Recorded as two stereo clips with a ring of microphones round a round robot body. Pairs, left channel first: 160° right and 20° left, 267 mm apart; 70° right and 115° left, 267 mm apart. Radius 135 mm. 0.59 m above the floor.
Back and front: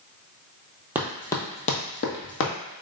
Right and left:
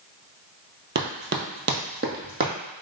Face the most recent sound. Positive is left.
turn(degrees=170)